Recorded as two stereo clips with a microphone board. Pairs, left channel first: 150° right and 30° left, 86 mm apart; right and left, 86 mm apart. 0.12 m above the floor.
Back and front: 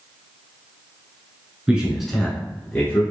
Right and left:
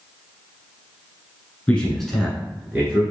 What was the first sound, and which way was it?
A man speaking, 30° right.